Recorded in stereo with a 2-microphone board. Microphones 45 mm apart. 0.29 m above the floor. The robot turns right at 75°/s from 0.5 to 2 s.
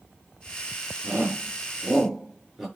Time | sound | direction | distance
1.0 | a shout | 60° right (ahead or behind) | 5.5 m